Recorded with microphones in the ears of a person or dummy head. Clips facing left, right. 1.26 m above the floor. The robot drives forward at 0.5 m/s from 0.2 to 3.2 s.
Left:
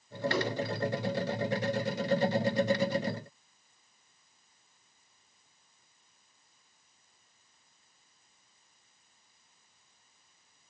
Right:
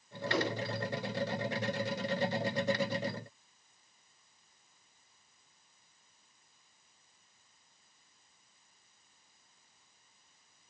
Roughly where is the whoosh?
Centre.